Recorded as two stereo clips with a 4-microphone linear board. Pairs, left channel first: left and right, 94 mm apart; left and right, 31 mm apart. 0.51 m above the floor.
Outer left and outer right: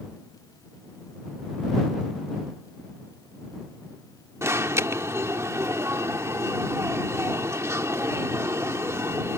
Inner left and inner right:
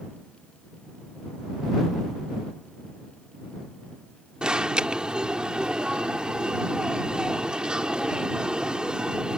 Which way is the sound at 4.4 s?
30° right (ahead or behind).